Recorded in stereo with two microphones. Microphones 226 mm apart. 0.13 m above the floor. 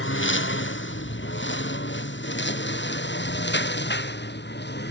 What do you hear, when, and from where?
0.0 s a lawn mower: 55° left (ahead or behind); by 4.9 s 45° left (ahead or behind)